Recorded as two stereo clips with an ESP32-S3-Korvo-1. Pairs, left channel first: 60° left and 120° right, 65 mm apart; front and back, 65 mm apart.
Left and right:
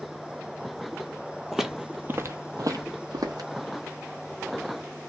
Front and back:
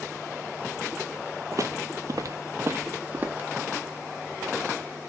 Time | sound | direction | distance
1.5 | footsteps | 150° left | 0.7 m